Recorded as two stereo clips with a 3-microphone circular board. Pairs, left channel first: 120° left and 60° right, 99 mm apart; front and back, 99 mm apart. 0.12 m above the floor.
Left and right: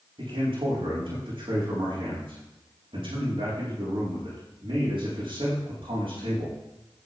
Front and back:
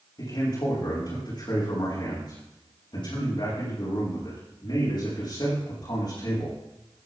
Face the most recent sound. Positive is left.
turn(degrees=-35)